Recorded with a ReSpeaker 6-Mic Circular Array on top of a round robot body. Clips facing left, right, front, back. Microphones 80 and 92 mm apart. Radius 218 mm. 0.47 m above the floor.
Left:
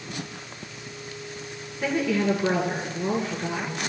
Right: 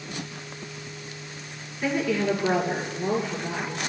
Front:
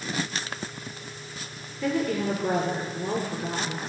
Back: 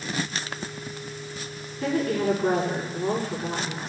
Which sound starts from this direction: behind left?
A woman speaking, at 1.8 s.